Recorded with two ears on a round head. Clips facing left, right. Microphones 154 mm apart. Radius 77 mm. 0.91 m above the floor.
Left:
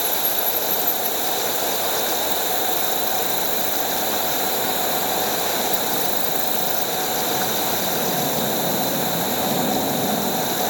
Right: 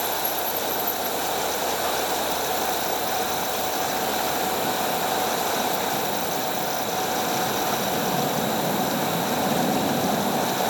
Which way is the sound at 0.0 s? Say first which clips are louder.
Even; 35° left (ahead or behind).